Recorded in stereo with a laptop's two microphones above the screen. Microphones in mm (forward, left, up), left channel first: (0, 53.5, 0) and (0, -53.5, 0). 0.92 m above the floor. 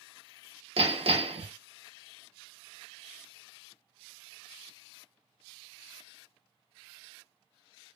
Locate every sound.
0.8 s hammering: 60° right (ahead or behind), 0.8 m